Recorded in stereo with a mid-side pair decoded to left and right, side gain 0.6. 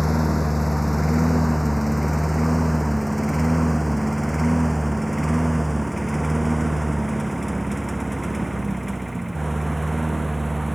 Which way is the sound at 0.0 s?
10° left.